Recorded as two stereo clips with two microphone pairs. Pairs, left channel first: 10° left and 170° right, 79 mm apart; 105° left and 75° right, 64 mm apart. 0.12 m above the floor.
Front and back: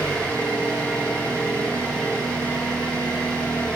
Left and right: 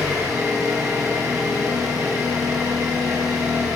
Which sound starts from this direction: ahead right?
An engine running, at 0.0 s.